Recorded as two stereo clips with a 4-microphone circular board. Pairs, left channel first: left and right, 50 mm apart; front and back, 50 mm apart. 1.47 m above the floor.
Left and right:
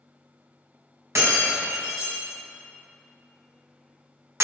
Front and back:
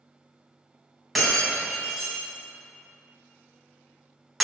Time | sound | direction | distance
1.1 | breaking glass | 90° right | 4 m